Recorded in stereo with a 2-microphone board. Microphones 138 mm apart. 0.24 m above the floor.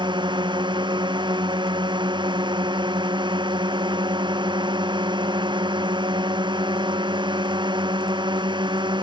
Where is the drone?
35° right (ahead or behind).